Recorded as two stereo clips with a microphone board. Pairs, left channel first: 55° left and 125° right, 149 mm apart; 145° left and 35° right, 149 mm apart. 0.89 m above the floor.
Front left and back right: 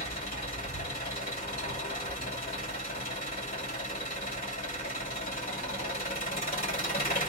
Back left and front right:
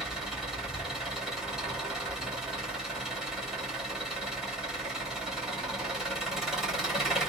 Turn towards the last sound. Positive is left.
turn(degrees=55)